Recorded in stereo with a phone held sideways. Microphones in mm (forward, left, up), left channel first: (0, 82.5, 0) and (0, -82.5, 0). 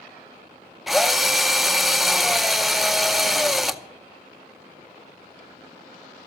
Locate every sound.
0.9 s a drill: centre (ahead or behind), 0.6 m